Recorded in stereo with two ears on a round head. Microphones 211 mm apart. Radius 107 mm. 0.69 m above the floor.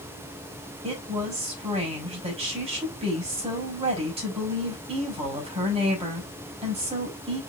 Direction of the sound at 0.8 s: 25° right (ahead or behind).